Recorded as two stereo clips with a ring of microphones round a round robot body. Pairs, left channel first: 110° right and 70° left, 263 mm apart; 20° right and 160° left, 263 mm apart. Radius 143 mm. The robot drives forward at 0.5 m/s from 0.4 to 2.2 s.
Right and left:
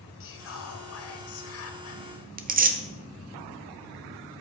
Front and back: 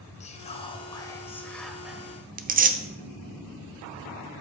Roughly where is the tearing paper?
Behind left.